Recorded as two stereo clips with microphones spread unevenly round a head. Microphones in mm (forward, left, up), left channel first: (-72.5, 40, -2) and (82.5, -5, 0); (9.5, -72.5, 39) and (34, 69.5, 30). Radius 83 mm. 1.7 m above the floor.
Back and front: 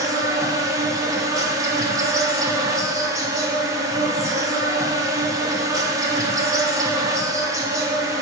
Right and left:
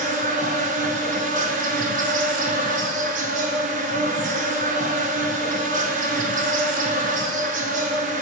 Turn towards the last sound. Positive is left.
turn(degrees=50)